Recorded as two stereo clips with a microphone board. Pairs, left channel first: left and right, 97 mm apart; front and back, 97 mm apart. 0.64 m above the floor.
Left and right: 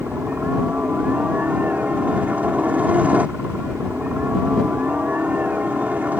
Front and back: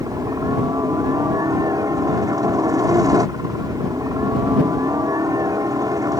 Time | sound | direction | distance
0.0 | a helicopter | 155° right | ?